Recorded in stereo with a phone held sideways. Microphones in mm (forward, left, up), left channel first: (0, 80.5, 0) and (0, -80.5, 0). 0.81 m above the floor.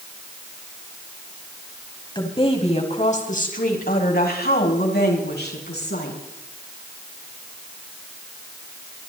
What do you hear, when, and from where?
2.1 s a woman speaking: 30° left (ahead or behind), 4.5 m; by 6.2 s 85° left, 7 m